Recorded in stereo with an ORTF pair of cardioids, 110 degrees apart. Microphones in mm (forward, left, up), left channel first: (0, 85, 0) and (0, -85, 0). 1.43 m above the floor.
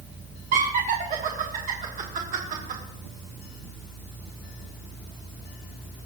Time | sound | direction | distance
0.5 | laughter | 55° right | 1.5 m